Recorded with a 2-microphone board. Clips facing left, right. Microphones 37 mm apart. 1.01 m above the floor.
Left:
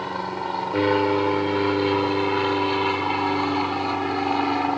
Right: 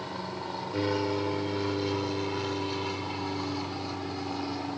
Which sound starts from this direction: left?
An aircraft, at 0.0 s.